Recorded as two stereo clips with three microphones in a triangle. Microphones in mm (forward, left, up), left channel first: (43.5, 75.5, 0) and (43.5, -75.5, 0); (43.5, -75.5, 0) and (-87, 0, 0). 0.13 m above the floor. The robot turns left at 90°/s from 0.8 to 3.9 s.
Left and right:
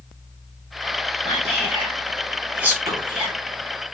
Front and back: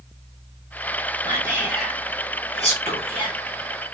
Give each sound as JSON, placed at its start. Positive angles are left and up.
{"t": 1.2, "sound": "whispering", "azimuth_deg": 110, "distance_m": 1.5}